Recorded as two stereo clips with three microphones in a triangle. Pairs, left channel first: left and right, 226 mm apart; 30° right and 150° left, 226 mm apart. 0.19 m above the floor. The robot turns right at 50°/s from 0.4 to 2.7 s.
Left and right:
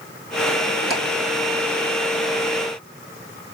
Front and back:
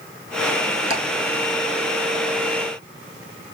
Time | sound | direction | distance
0.9 | ticking | straight ahead | 2.5 m